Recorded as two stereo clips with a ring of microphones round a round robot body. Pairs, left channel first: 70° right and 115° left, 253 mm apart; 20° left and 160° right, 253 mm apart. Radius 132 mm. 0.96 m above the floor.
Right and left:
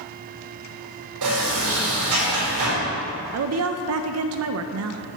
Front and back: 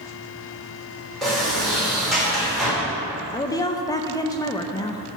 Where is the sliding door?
110° left, 4 m.